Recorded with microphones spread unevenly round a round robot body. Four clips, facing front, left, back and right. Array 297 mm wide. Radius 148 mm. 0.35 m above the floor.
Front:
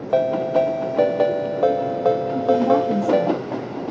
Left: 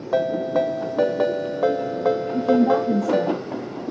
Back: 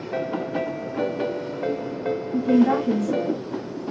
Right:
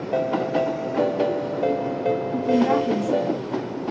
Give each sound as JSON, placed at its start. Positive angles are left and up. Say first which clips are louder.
{"t": 0.1, "sound": "a ringtone", "louder": "left 2 dB, front 9 dB", "azimuth_deg": 5, "distance_m": 1.2}
{"t": 2.3, "sound": "a woman speaking", "louder": "left 2 dB, back 3 dB", "azimuth_deg": -135, "distance_m": 5.5}